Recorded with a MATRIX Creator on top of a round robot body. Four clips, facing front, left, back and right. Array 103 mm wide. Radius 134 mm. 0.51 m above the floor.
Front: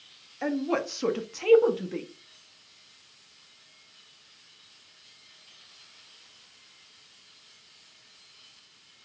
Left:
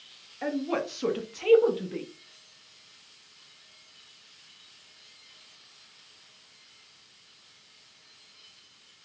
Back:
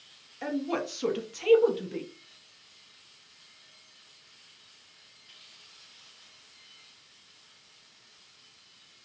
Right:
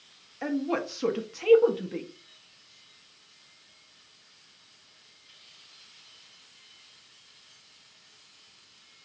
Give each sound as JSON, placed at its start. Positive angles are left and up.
{"t": 0.4, "sound": "a woman speaking", "azimuth_deg": -20, "distance_m": 0.7}